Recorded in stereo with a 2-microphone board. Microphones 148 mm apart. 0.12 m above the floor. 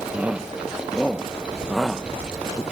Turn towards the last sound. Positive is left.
turn(degrees=0)  # may be behind; listen again after turning